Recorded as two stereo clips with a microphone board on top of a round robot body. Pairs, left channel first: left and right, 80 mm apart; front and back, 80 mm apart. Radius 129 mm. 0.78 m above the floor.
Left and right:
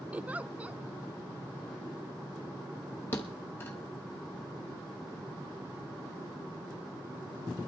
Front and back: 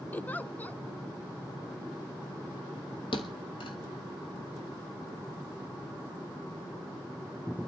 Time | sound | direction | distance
0.1 | a giggle | 40° right | 0.7 m
3.1 | a thud | 25° left | 1.0 m